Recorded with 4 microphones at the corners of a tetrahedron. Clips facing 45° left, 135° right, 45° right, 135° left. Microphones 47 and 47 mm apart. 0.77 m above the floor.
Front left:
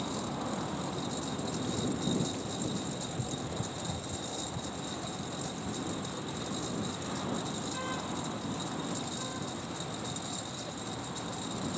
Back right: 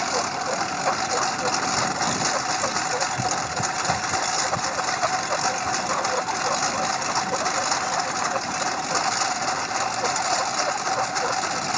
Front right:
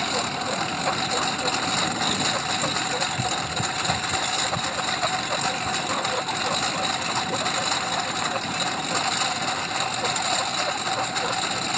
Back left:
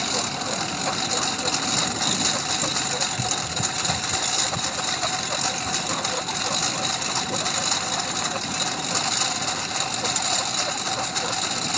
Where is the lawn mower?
125° right.